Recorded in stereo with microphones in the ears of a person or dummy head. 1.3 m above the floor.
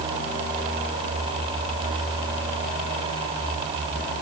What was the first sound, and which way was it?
Only background noise.